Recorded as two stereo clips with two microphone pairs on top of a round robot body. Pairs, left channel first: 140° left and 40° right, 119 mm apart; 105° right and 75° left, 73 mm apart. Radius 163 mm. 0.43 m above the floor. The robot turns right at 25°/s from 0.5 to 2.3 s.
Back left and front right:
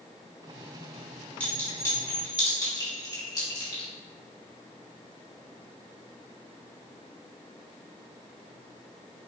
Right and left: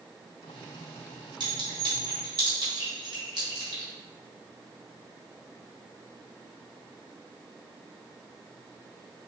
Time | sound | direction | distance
1.4 | a clink | 60° left | 2.0 m